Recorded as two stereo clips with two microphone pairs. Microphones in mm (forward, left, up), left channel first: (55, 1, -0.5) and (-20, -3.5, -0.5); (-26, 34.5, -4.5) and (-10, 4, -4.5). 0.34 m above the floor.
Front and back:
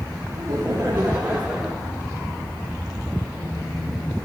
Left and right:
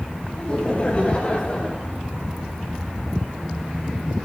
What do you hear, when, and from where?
0.4 s laughter: 165° left, 2.5 m; by 1.9 s 90° left, 1.7 m